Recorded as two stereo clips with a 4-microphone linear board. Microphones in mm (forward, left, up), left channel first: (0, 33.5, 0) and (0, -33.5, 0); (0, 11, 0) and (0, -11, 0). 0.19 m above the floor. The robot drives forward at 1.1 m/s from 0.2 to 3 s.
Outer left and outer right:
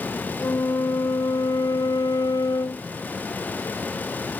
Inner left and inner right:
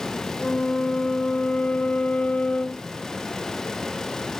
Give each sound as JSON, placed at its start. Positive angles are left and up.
{"t": 0.4, "sound": "a flute", "side_deg": 50}